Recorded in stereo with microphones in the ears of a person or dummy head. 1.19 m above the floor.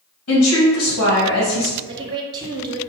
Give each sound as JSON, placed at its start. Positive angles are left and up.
{"t": 0.3, "sound": "a woman speaking", "side_deg": 70, "distance_m": 1.1}
{"t": 1.9, "sound": "a woman speaking", "side_deg": -25, "distance_m": 0.5}